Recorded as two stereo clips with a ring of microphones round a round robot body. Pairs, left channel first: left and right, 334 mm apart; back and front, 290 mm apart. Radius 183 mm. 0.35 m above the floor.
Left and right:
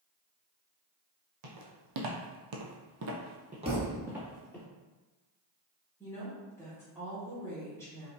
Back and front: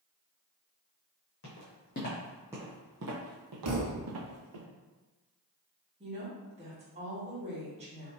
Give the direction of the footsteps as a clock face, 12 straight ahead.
4 o'clock.